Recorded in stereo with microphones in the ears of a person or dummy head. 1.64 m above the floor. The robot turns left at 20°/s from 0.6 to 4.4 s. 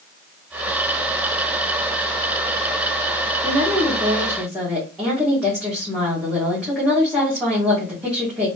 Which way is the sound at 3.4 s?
20° right (ahead or behind).